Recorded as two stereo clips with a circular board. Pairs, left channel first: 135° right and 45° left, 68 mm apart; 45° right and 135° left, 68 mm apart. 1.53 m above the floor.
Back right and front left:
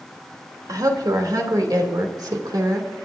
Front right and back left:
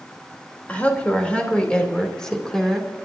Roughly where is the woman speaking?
Ahead.